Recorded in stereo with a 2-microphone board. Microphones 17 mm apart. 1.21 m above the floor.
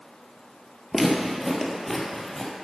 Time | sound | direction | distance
0.9 | footsteps | 10° right (ahead or behind) | 1.5 m